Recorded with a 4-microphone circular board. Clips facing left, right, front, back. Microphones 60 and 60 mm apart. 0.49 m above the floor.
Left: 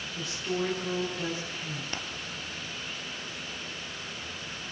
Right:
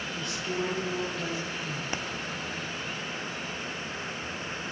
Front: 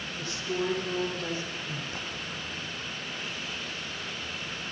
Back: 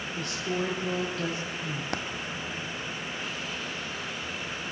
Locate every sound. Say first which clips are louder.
0.1 s a woman speaking: left 2 dB, back 1 dB; straight behind, 9.5 m
1.9 s a dropped coin: right 4 dB, back 5 dB; 165° right, 1.9 m